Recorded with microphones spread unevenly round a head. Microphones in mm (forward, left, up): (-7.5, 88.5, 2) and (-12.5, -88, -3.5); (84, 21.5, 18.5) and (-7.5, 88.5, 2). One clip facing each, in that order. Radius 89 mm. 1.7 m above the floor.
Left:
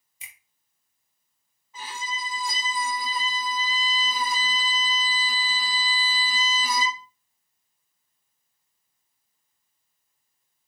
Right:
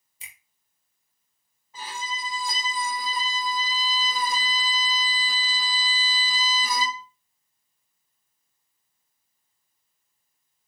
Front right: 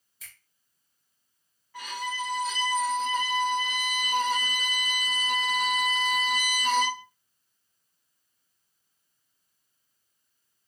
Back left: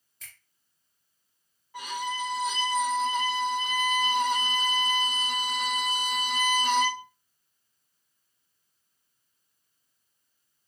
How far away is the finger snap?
About 0.9 m.